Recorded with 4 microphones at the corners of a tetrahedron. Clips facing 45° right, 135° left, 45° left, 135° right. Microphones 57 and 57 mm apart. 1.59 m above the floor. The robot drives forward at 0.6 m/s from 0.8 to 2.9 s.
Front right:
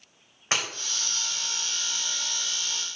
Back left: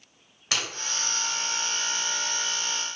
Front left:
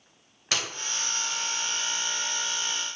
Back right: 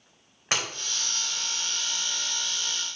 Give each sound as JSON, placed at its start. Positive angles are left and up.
{"t": 0.5, "sound": "breaking glass", "azimuth_deg": -90, "distance_m": 1.8}